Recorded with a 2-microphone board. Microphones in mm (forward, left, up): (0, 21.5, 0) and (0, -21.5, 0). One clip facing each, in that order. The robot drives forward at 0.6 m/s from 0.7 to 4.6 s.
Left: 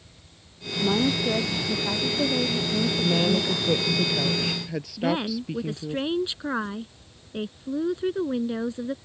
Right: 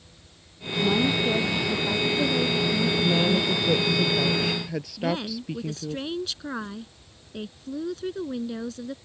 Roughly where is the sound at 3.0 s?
Centre.